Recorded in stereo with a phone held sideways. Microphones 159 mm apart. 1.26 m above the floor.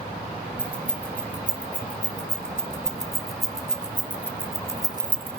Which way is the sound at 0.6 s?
10° left (ahead or behind).